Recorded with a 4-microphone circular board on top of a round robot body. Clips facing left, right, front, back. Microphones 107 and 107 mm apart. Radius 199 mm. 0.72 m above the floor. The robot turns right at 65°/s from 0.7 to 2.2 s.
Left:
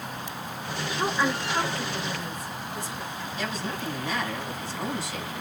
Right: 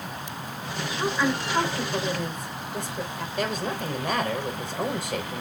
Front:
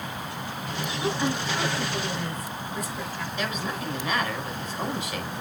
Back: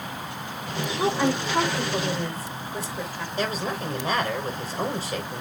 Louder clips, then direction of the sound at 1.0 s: Right 1 dB, back 4 dB; 160° left.